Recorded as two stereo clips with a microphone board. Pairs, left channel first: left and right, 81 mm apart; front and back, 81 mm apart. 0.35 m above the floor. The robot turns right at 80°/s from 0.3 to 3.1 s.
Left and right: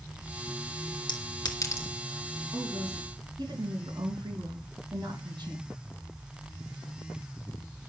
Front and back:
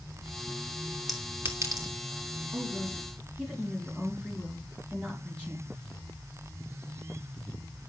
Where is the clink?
95° left, 3 m; by 1.9 s 160° left, 3 m.